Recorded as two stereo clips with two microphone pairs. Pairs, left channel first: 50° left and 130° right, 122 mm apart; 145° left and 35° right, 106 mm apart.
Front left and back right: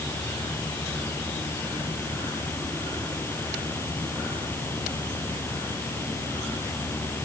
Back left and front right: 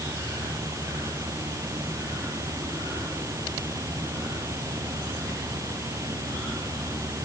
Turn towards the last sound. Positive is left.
No sound to turn to.